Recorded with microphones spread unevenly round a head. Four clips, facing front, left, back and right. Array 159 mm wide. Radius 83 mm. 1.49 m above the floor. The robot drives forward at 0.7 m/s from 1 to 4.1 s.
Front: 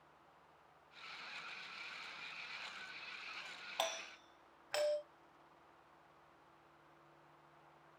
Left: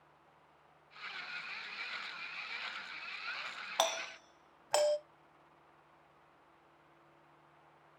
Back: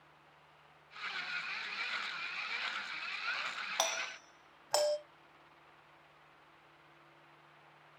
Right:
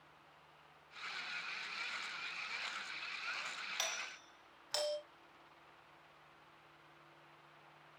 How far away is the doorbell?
About 0.5 m.